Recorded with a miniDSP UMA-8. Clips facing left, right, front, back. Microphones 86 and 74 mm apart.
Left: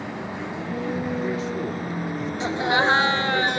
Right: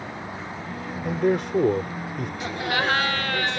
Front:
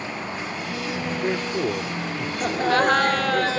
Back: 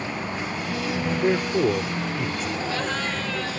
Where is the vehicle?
95° left; by 3.6 s 65° left.